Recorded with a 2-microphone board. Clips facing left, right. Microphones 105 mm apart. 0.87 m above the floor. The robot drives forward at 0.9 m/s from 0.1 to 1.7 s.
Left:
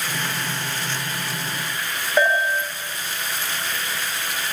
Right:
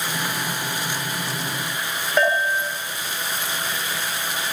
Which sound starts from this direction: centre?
A bell, at 2.2 s.